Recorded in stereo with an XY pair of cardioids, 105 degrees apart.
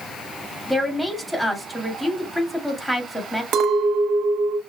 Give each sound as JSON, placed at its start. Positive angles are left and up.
{"t": 0.7, "sound": "a woman speaking", "azimuth_deg": 5, "distance_m": 2.0}
{"t": 3.5, "sound": "a clink", "azimuth_deg": -65, "distance_m": 0.9}